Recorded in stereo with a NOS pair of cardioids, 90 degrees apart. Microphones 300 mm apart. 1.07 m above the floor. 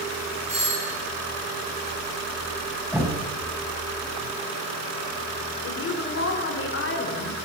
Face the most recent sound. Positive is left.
turn(degrees=45)